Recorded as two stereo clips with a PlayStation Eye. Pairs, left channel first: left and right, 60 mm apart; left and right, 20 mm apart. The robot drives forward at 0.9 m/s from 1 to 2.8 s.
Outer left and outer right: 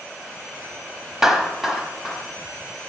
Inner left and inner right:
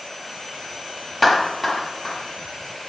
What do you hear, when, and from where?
1.2 s a clap: 10° right (ahead or behind), 0.9 m; by 2.2 s 5° right (ahead or behind), 1.6 m